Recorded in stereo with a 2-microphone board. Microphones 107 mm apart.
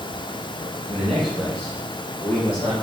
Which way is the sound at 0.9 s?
10° right (ahead or behind).